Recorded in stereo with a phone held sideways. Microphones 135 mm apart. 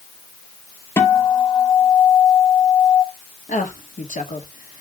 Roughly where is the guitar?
Centre.